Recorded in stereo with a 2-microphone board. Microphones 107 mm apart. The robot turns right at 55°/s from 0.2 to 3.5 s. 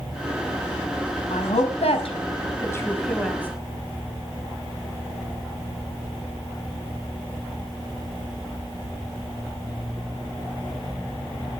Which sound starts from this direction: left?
A woman speaking, at 1.3 s.